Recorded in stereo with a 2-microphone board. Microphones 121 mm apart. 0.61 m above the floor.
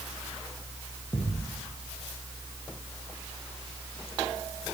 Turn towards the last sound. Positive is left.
turn(degrees=40)  # may be behind; listen again after turning